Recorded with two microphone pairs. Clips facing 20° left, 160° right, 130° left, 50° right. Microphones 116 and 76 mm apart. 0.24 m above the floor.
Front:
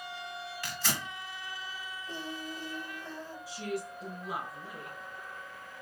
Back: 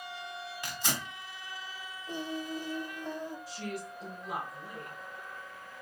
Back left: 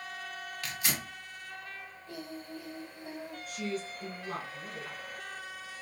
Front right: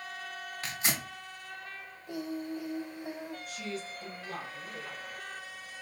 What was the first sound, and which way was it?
Tearing paper, 100° right.